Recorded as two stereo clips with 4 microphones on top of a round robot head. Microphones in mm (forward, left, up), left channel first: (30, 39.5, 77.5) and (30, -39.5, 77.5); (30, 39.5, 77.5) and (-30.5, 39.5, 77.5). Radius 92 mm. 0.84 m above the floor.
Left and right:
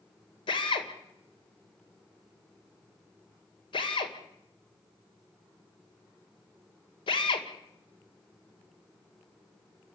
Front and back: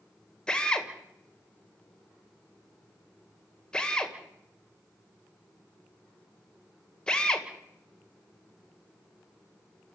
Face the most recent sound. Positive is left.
turn(degrees=75)